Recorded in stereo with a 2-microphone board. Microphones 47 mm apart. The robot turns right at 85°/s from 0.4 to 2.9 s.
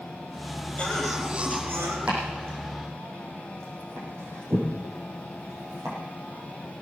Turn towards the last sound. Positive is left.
turn(degrees=-80)